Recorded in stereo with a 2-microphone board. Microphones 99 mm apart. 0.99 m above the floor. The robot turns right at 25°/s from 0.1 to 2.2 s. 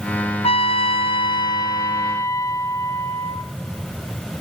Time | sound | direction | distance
0.4 | a trumpet | 105° left | 0.6 m